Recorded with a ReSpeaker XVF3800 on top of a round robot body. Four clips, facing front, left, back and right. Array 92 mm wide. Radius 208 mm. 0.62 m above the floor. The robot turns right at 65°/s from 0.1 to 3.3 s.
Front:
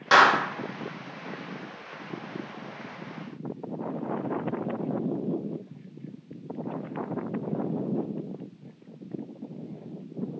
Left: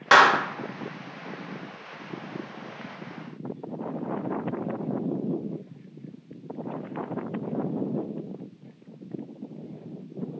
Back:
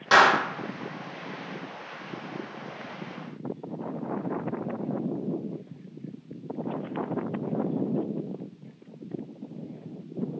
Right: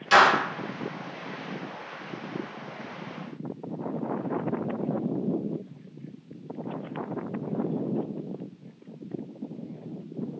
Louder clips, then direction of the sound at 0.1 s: Left 2 dB, even; 90° left.